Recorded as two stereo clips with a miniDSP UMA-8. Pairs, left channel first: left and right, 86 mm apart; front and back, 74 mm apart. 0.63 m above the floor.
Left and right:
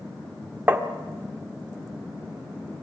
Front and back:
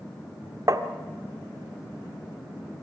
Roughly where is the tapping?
Behind right.